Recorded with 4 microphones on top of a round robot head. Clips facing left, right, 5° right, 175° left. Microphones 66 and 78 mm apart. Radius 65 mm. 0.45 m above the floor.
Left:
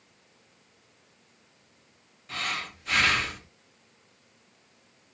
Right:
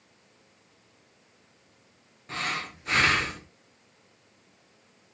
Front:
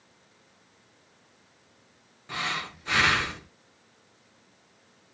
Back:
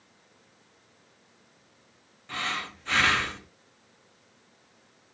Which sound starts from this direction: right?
Breathing, at 2.3 s.